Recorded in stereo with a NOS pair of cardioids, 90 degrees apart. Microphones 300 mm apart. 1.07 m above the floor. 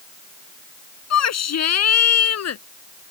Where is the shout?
60° left; by 2.6 s 55° left.